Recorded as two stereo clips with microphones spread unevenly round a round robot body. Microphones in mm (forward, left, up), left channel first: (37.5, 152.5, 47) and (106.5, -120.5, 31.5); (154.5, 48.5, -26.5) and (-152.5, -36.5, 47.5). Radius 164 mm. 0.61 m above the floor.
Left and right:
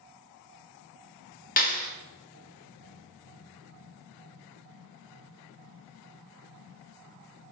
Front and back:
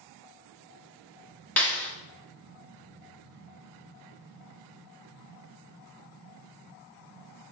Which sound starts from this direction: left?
A clap, at 1.6 s.